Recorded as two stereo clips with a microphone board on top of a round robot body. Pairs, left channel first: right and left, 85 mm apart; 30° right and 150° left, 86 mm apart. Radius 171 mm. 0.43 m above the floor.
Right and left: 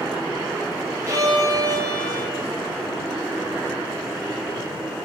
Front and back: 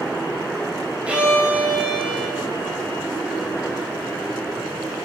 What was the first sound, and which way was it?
A violin, 80° left.